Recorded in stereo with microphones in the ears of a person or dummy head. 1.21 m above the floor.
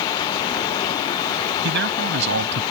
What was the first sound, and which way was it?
A man speaking, 65° right (ahead or behind).